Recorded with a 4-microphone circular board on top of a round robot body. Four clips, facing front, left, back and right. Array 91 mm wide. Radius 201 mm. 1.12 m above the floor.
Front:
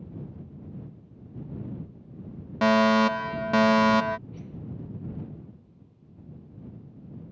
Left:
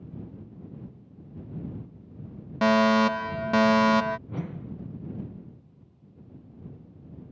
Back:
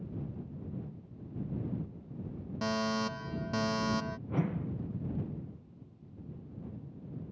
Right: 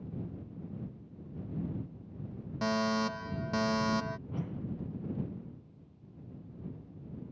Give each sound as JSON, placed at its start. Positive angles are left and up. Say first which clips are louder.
{"t": 2.6, "sound": "a fire alarm", "louder": "left 11 dB, front 13 dB", "azimuth_deg": 45}
{"t": 4.3, "sound": "a whoosh", "louder": "left 3 dB, back 6 dB", "azimuth_deg": 160}